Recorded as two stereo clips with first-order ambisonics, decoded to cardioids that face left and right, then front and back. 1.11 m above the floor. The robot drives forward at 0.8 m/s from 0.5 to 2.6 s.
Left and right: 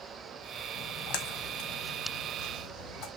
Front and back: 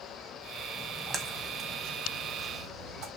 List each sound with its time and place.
0.8 s a splash: 95° left, 1.6 m; by 3.1 s 140° left, 2.5 m